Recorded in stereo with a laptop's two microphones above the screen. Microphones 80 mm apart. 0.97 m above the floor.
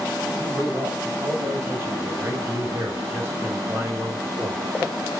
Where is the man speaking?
35° right (ahead or behind), 6 m; by 4.6 s 30° right (ahead or behind), 3.5 m.